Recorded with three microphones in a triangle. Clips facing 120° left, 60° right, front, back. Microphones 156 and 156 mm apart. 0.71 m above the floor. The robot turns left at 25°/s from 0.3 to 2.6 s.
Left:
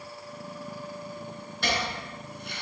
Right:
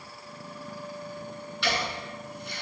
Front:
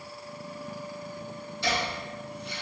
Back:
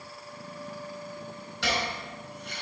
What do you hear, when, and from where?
1.6 s chopping: 165° left, 4 m; by 2.6 s 140° left, 4 m